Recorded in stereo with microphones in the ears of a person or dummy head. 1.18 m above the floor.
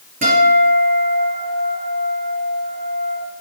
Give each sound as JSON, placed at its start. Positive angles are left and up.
{"t": 0.2, "sound": "a guitar", "side_deg": -40, "distance_m": 3.5}